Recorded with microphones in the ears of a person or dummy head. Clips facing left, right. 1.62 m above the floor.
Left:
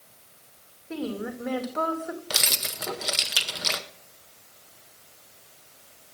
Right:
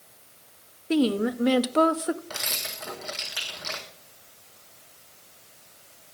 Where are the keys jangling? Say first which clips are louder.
Left 3 dB; 45° left (ahead or behind), 0.7 m.